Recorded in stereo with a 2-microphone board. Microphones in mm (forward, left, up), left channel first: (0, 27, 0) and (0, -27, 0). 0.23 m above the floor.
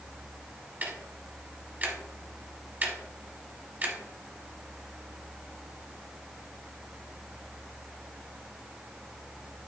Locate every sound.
0.8 s ticking: 30° right (ahead or behind), 1.1 m